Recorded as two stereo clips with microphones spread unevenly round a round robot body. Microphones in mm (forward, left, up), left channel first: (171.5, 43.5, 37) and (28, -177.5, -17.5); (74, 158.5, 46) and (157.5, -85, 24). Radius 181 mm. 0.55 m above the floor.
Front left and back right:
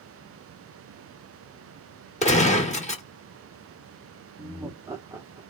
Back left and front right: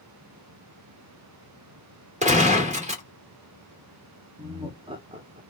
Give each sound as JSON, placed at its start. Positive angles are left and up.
{"t": 2.2, "sound": "a gunshot", "azimuth_deg": -15, "distance_m": 1.9}
{"t": 4.4, "sound": "laughter", "azimuth_deg": -95, "distance_m": 0.8}